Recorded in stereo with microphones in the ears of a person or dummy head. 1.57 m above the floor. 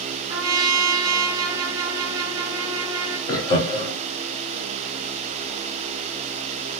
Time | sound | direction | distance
0.3 | a trumpet | 20° right (ahead or behind) | 0.5 m
3.3 | laughter | 25° left (ahead or behind) | 0.8 m